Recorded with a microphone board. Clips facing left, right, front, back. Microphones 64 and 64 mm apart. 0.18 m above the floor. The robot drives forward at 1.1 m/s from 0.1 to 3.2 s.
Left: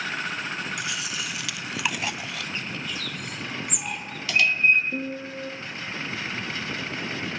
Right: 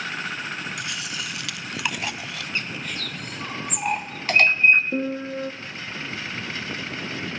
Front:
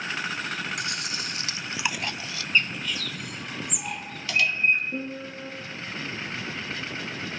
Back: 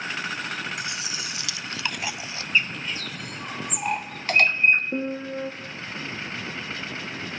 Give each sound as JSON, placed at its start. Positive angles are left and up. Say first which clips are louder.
{"t": 0.8, "sound": "chewing", "louder": "even, even", "azimuth_deg": 0, "distance_m": 1.5}
{"t": 2.5, "sound": "a bird", "louder": "right 2 dB, even", "azimuth_deg": -95, "distance_m": 0.8}
{"t": 4.9, "sound": "a piano", "louder": "right 5 dB, back 5 dB", "azimuth_deg": -140, "distance_m": 1.5}